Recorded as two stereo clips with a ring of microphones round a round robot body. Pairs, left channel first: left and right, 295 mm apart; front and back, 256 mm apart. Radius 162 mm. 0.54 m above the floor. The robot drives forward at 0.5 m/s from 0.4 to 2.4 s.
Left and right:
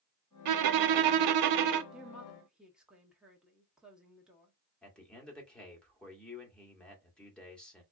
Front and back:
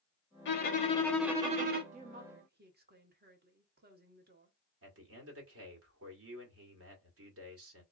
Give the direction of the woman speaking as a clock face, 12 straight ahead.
6 o'clock.